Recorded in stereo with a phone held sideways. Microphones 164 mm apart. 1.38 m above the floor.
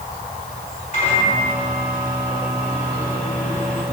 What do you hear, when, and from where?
0.9 s a microwave: 50° left (ahead or behind), 4 m